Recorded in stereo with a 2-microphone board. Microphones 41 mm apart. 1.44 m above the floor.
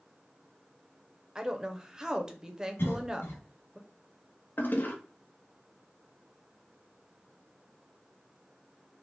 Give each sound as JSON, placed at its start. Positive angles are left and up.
{"t": 1.4, "sound": "a woman speaking", "side_deg": -15, "distance_m": 0.6}
{"t": 2.8, "sound": "a cough", "side_deg": 65, "distance_m": 1.6}
{"t": 4.6, "sound": "a toilet flushing", "side_deg": 50, "distance_m": 0.7}